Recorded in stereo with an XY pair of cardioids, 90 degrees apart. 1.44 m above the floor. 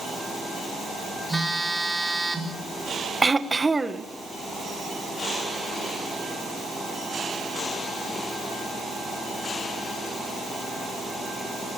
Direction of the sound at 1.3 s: Straight ahead.